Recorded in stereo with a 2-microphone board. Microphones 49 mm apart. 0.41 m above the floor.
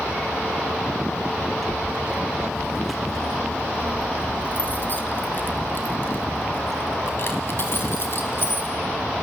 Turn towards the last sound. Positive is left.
turn(degrees=50)  # may be behind; listen again after turning